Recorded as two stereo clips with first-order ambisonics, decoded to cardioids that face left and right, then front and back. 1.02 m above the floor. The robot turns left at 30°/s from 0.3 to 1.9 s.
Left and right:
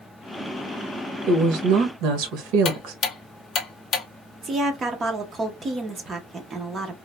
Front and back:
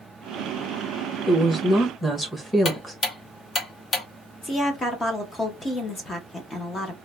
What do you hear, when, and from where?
1.3 s a woman speaking: 65° right, 0.9 m; by 3.0 s 85° right, 0.9 m
2.6 s ticking: 55° left, 0.5 m
4.4 s a woman speaking: 50° right, 0.6 m